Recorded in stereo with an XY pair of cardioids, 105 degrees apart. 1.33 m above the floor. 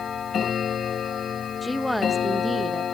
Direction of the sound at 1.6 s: 15° left.